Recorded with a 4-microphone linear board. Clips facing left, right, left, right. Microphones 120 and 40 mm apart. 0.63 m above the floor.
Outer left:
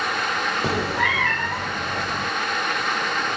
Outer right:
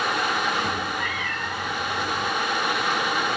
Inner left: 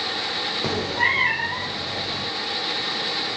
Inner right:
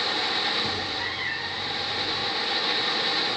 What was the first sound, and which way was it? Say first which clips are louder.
A cat meowing: outer left 5 dB, inner left 7 dB; 85° left.